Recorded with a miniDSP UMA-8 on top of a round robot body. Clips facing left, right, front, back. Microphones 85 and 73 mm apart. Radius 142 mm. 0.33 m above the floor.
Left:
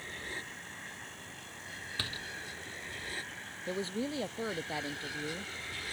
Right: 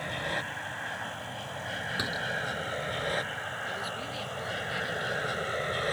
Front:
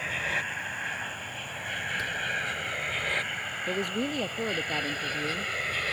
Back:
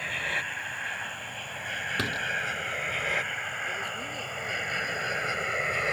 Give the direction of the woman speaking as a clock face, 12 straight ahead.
11 o'clock.